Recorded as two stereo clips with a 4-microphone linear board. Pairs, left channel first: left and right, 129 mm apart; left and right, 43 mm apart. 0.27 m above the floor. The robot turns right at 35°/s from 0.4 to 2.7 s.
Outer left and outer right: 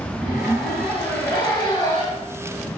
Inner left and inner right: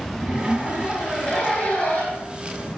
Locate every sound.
0.2 s a zipper: 10° right, 1.5 m; by 2.2 s 55° left, 1.5 m